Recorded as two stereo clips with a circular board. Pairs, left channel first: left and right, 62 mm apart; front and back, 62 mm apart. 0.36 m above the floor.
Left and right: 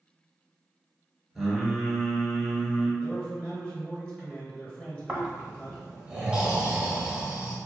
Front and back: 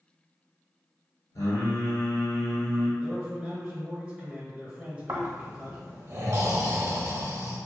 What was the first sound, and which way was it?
Singing, straight ahead.